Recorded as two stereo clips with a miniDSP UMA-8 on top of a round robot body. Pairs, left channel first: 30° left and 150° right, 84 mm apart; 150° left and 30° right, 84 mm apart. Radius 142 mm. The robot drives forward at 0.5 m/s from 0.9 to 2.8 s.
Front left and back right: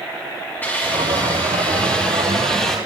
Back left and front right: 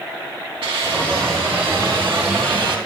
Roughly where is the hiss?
Ahead right.